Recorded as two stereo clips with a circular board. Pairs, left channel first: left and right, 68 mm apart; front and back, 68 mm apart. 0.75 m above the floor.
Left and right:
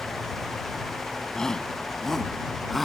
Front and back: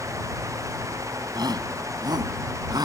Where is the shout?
170° left; by 2.9 s straight behind.